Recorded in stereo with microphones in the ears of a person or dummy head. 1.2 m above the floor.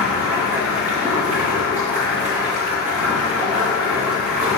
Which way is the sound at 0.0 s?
10° right (ahead or behind).